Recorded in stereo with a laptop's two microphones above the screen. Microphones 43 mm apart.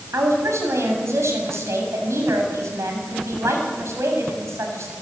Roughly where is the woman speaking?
Right.